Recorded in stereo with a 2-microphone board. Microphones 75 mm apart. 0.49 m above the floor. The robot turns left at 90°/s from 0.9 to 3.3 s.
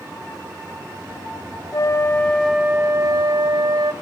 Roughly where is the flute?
Ahead left.